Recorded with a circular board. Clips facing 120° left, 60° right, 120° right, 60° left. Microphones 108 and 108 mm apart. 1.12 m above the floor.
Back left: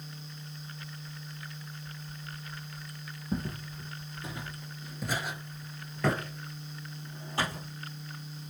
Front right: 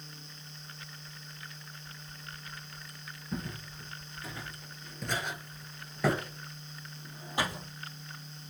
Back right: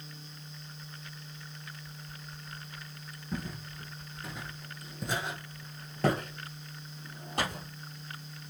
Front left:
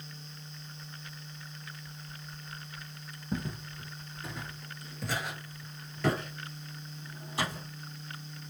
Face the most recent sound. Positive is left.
turn(degrees=-130)